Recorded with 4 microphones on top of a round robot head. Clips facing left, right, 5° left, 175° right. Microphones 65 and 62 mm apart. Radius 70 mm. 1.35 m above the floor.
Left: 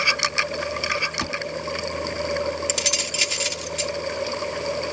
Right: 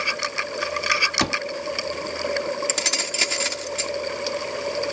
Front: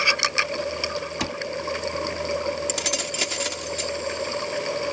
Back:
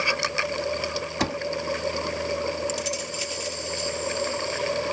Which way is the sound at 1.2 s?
110° right.